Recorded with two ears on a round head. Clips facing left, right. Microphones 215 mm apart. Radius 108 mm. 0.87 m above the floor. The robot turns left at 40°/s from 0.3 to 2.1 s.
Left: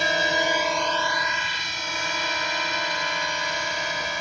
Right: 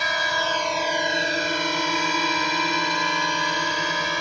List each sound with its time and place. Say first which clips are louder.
0.0 s a drone: left 4 dB; 25° left (ahead or behind); by 4.2 s 70° right (ahead or behind)